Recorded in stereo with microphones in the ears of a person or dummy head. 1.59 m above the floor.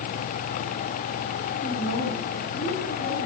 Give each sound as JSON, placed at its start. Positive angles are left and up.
{"t": 1.6, "sound": "a woman speaking", "side_deg": 80, "distance_m": 7.5}